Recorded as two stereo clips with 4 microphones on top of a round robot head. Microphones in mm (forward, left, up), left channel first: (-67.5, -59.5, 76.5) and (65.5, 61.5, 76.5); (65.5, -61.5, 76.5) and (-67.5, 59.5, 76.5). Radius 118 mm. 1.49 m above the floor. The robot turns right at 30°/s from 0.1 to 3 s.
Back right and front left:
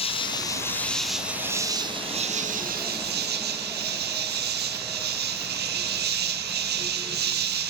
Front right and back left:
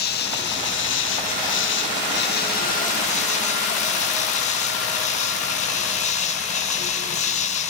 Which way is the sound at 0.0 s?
75° right.